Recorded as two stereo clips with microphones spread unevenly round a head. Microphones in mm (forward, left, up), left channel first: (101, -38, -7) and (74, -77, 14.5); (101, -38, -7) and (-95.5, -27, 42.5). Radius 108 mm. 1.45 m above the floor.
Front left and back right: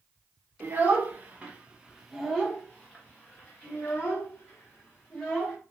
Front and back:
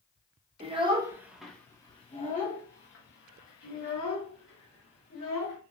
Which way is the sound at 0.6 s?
135° right.